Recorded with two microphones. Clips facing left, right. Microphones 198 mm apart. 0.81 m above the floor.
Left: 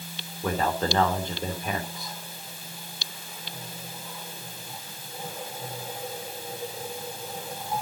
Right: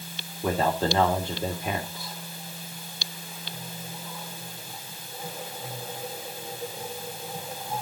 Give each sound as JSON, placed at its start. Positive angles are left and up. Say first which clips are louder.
{"t": 0.4, "sound": "a man speaking", "louder": "right 2 dB", "side_deg": -10, "distance_m": 2.5}